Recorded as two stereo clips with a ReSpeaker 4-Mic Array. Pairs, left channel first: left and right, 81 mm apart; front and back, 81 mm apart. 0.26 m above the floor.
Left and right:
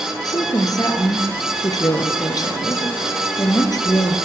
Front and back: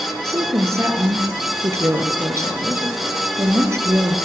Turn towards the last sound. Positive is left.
turn(degrees=125)